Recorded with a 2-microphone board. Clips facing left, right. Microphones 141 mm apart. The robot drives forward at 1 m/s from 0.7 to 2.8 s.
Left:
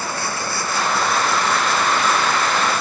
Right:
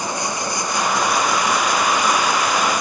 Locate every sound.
0.0 s running water: 15° right (ahead or behind)